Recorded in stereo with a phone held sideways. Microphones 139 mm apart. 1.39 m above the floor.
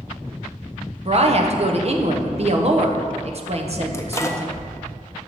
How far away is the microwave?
About 0.5 m.